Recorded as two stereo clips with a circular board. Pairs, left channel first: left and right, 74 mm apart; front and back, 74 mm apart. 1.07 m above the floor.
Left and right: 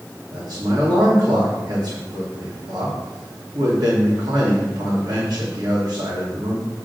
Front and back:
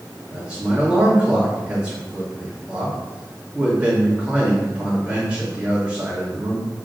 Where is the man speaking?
100° right, 3 m.